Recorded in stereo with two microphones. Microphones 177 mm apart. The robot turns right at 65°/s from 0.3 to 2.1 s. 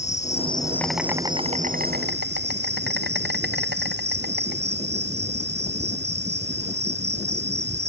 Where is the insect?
140° left; by 7.9 s 105° right.